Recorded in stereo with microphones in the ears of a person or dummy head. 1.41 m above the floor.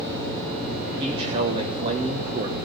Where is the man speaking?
30° right (ahead or behind), 1.3 m.